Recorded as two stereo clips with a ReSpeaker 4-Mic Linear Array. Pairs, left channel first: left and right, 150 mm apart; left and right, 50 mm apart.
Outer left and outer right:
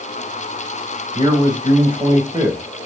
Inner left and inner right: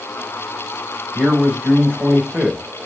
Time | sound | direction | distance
1.1 | a man speaking | 30° right (ahead or behind) | 3 m